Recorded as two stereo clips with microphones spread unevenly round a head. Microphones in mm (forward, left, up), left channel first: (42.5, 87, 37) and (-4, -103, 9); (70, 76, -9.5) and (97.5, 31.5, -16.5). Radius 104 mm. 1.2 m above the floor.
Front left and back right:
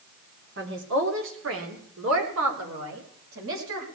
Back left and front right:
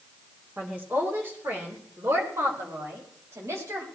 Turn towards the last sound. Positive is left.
turn(degrees=-95)